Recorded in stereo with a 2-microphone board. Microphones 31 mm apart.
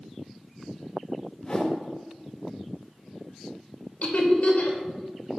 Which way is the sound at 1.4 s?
25° left (ahead or behind).